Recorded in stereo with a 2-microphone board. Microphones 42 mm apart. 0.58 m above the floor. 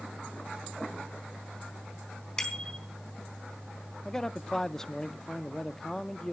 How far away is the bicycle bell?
About 4 m.